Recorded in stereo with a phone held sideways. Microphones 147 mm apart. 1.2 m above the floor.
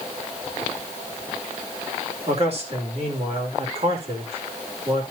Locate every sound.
2.3 s a man speaking: 45° right (ahead or behind), 3 m